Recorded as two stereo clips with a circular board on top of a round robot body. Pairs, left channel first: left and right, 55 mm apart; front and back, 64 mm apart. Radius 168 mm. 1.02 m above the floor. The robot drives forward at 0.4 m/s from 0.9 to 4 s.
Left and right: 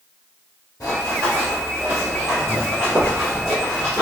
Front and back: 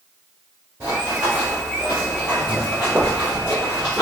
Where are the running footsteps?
120° left, 1.5 m.